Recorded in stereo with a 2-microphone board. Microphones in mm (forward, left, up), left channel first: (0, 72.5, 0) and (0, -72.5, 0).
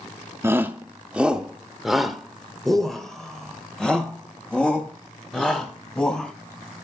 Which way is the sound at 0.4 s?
15° right (ahead or behind).